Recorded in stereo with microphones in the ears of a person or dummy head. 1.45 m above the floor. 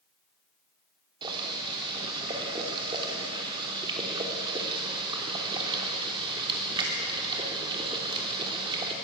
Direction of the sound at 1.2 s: 25° right (ahead or behind).